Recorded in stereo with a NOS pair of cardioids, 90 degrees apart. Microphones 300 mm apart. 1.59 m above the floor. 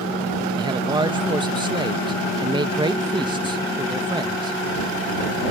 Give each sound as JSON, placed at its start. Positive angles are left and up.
{"t": 0.6, "sound": "a man speaking", "azimuth_deg": -15}